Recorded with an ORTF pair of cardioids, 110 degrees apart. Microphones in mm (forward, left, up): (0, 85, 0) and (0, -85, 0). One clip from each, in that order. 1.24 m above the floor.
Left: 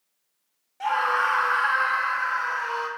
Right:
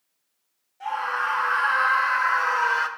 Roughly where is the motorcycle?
No motorcycle in this recording.